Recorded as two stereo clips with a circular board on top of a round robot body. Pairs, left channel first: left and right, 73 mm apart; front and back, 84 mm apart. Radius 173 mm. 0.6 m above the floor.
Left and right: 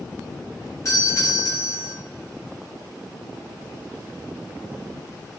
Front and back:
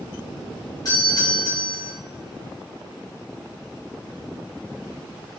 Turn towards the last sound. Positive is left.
turn(degrees=45)